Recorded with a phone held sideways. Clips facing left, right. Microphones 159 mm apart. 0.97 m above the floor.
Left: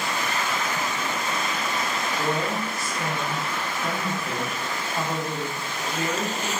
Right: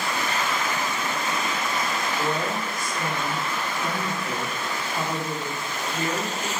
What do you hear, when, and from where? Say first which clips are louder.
2.2 s a woman speaking: left 2 dB; 5° left (ahead or behind), 0.9 m